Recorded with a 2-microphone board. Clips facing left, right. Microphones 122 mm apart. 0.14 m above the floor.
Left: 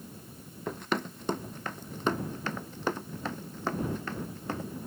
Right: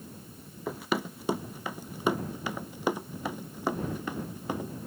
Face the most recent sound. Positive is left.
turn(degrees=-15)  # may be behind; listen again after turning